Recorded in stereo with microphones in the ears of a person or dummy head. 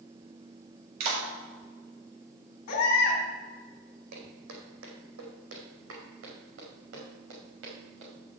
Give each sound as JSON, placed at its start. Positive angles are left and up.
{"t": 1.0, "sound": "a clap", "side_deg": -40, "distance_m": 4.5}
{"t": 2.7, "sound": "a baby crying", "side_deg": 45, "distance_m": 3.0}
{"t": 4.1, "sound": "footsteps", "side_deg": -60, "distance_m": 3.5}